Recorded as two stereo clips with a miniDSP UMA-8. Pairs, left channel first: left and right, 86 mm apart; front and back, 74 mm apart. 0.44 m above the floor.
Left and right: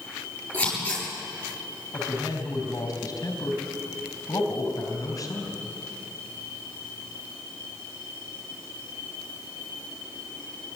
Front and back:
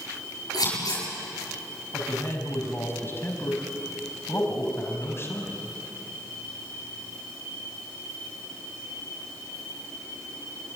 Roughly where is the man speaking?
Ahead left.